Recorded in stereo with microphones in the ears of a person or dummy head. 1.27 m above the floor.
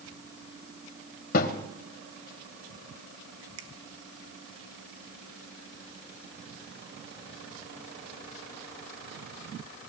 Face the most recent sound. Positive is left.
turn(degrees=-80)